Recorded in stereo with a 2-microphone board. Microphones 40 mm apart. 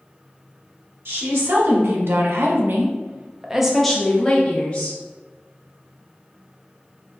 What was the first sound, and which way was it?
A woman speaking, 75° right (ahead or behind).